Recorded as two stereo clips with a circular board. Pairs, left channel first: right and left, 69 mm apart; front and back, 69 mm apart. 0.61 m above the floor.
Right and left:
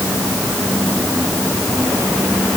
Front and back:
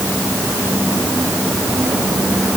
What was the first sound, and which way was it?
Only background noise.